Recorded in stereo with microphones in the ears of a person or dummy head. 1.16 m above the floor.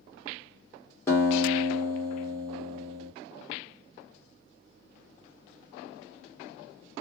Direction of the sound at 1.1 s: 15° left (ahead or behind).